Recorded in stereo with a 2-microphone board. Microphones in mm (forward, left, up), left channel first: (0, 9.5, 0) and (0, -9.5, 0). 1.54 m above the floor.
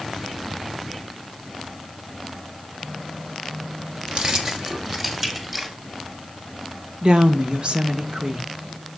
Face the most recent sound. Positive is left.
turn(degrees=-55)  # may be behind; listen again after turning